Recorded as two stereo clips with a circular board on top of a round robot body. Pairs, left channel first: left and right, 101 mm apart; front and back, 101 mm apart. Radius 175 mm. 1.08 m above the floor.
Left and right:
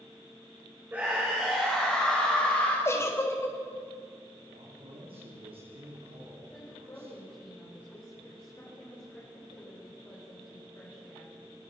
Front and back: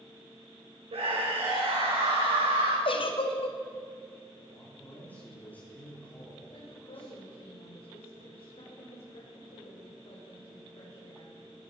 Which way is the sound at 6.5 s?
25° left.